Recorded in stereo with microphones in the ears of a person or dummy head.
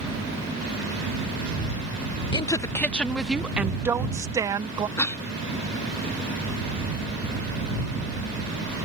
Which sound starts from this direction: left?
A woman speaking, at 2.3 s.